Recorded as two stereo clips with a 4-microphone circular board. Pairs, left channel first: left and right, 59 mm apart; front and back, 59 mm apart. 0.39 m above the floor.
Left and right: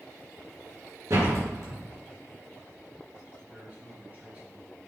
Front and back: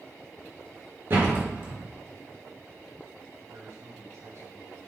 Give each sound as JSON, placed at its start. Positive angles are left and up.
{"t": 1.1, "sound": "a door slam", "azimuth_deg": -125, "distance_m": 4.0}
{"t": 3.4, "sound": "a man speaking", "azimuth_deg": -150, "distance_m": 3.5}